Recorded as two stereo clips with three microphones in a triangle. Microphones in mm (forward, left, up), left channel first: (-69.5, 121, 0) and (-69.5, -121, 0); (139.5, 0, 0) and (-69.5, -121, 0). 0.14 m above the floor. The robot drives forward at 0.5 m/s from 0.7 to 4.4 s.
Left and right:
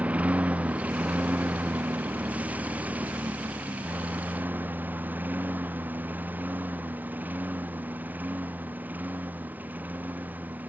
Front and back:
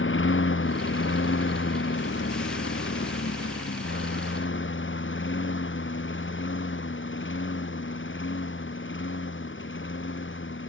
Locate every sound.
0.0 s a lawn mower: 5° right